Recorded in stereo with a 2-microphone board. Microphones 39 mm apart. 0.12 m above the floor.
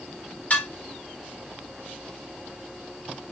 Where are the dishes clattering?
35° left (ahead or behind), 1.0 m.